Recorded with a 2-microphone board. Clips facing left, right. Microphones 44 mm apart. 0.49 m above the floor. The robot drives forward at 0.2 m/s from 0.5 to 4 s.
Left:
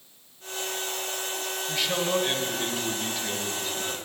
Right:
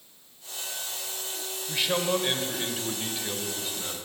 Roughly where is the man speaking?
Centre.